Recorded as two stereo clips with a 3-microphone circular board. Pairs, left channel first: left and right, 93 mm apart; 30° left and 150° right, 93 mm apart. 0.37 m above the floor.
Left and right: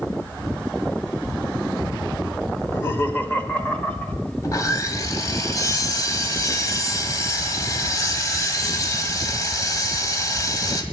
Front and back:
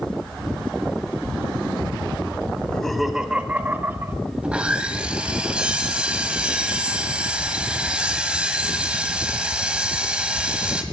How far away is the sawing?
About 1.5 m.